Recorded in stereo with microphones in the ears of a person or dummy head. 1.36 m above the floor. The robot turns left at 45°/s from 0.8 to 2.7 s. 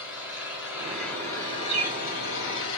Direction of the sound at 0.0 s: 170° right.